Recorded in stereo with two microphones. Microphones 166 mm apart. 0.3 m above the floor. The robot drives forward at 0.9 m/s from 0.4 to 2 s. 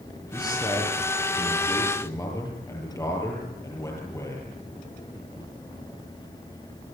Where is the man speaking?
25° left (ahead or behind), 6.5 m; by 4.5 s 20° left (ahead or behind), 8 m.